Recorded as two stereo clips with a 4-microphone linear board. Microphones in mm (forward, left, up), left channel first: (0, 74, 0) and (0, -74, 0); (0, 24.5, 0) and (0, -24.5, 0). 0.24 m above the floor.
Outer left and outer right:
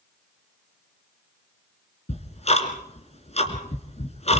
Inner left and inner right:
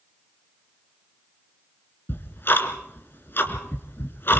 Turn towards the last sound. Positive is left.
turn(degrees=50)  # may be behind; listen again after turning